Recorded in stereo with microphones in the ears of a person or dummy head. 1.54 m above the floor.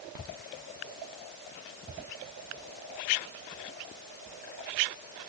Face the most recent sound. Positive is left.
No sound to turn to.